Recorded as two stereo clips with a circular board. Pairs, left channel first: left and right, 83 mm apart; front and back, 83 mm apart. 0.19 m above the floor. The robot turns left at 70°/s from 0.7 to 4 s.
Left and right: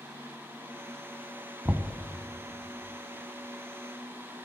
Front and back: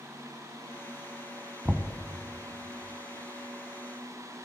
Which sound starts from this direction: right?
Knocking, at 1.6 s.